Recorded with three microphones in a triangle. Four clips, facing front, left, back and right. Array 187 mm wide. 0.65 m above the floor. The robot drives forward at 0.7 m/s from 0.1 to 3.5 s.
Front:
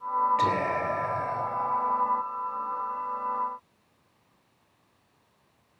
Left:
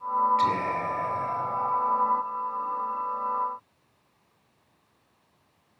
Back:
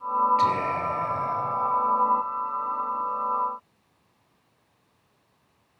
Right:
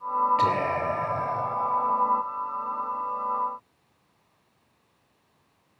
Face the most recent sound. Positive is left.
turn(degrees=-110)